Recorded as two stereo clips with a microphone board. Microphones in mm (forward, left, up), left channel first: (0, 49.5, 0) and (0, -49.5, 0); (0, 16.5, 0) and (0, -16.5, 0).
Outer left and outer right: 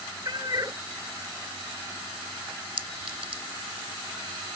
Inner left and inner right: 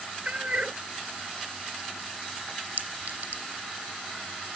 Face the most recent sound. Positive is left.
turn(degrees=-70)  # may be behind; listen again after turning